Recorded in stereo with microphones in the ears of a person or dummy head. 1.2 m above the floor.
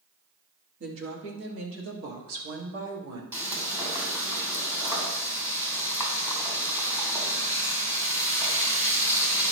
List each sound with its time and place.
0.8 s a woman speaking: 70° right (ahead or behind), 2 m; by 3.2 s 65° right (ahead or behind), 1.6 m
3.3 s frying: 15° right (ahead or behind), 2.5 m